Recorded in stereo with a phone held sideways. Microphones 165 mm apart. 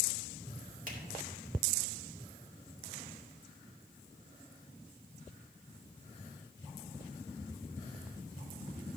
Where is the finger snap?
50° right (ahead or behind), 1.8 m.